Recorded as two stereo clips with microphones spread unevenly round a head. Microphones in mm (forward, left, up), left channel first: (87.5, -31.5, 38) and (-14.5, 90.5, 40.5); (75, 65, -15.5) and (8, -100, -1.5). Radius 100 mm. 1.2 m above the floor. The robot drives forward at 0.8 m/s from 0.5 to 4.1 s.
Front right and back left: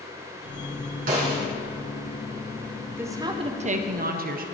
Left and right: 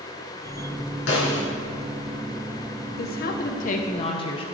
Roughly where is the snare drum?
Left.